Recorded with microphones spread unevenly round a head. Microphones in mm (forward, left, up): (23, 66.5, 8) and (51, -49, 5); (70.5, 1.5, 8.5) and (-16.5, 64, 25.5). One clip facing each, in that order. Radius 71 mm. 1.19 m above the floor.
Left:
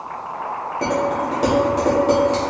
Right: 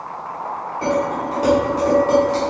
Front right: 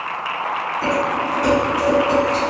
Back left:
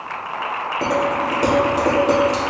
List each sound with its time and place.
0.8 s dishes clattering: 160° left, 1.8 m